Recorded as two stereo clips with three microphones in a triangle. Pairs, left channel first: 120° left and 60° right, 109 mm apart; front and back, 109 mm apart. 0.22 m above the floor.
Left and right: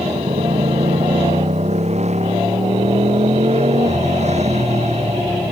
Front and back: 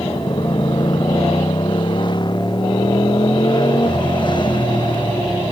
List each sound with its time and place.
0.0 s a motorcycle: 45° right